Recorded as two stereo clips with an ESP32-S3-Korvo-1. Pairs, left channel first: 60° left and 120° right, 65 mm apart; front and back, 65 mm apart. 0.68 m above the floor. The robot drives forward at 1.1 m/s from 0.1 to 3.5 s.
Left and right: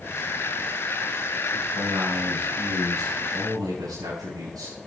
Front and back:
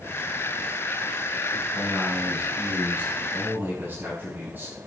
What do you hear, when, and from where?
1.8 s a man speaking: 95° right, 4.5 m; by 4.8 s 120° right, 5 m